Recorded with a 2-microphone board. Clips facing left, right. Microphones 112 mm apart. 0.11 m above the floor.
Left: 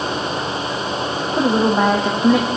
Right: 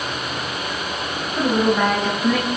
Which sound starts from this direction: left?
A woman speaking, at 1.4 s.